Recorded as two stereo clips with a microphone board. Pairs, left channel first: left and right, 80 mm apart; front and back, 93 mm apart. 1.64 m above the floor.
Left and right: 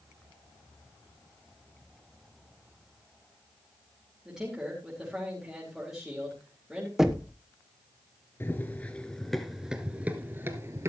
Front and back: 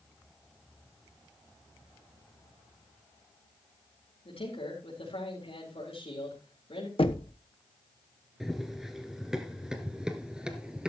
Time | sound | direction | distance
4.2 | a man speaking | 5° right | 4.5 m
7.0 | knocking | 5° right | 1.0 m
8.4 | running footsteps | 95° left | 1.7 m